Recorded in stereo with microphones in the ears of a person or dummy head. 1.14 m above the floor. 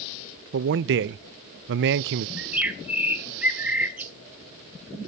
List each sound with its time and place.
0.5 s a man speaking: 65° right (ahead or behind), 0.5 m
2.4 s a bird: 10° right (ahead or behind), 1.3 m